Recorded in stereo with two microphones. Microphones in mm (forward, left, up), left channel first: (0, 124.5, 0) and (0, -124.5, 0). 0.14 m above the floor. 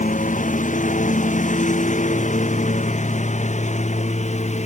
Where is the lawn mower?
30° left (ahead or behind); by 4.7 s 25° left (ahead or behind).